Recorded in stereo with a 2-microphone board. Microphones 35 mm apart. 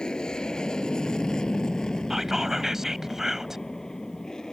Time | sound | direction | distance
0.0 | an aircraft | 25° left (ahead or behind) | ?
2.1 | whispering | 10° right (ahead or behind) | ?